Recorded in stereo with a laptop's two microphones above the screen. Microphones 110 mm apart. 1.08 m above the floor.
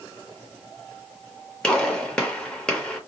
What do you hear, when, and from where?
1.6 s a gunshot: 10° left (ahead or behind), 0.9 m